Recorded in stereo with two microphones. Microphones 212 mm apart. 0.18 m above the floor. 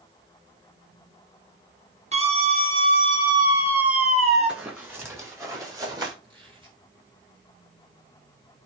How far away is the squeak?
About 5 m.